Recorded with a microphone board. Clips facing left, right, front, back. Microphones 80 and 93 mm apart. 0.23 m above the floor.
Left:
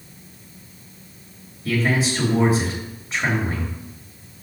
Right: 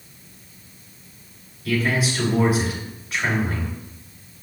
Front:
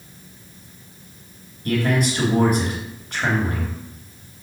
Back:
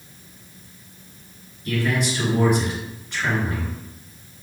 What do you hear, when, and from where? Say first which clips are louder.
1.6 s a man speaking: left 1 dB, front 3 dB; 35° left, 3.5 m